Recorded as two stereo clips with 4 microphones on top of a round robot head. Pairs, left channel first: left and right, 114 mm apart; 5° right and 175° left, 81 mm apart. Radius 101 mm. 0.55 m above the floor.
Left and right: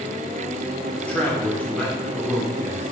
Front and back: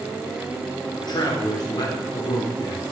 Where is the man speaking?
10° left, 2 m.